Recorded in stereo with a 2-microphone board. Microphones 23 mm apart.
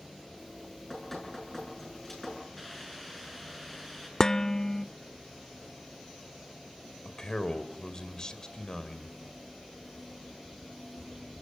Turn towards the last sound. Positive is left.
turn(degrees=35)  # may be behind; listen again after turning